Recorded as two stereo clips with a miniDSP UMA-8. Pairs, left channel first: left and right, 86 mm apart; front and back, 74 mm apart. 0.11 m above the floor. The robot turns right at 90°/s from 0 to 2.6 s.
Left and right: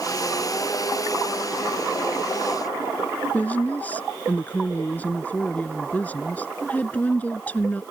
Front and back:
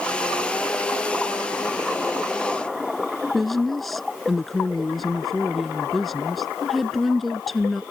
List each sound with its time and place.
3.3 s a woman speaking: 85° left